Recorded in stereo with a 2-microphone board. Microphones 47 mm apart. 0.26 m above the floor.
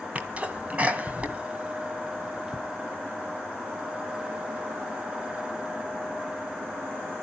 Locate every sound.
0.1 s a sneeze: 30° right (ahead or behind), 2 m